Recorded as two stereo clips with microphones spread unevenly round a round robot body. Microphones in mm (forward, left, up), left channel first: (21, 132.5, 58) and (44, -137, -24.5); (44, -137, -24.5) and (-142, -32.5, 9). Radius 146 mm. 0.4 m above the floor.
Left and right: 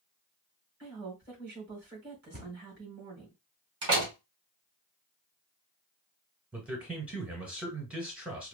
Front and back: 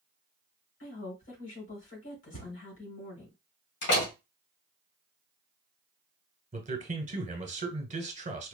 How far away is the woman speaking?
About 3.5 m.